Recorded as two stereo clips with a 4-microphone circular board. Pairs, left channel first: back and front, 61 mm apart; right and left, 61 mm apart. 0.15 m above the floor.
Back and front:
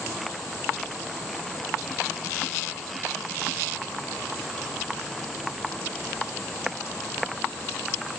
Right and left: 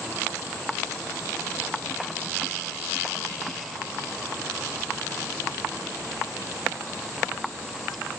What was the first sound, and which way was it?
Only background noise.